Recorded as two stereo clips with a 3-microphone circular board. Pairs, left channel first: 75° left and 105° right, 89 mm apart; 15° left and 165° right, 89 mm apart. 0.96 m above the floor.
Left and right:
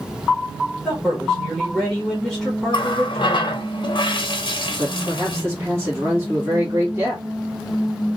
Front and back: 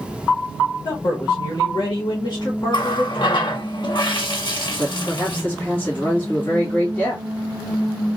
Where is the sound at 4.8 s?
50° right, 1.5 m.